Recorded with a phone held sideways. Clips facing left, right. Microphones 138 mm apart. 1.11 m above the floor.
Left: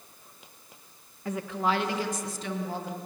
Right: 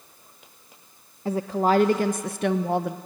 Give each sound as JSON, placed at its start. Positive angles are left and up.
{"t": 1.2, "sound": "a woman speaking", "side_deg": -30, "distance_m": 0.9}